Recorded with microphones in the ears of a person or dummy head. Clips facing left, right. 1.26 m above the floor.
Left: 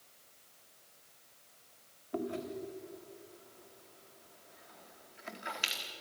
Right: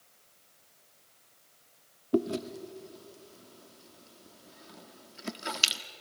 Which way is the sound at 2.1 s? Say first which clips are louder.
Right 8 dB; 50° right (ahead or behind).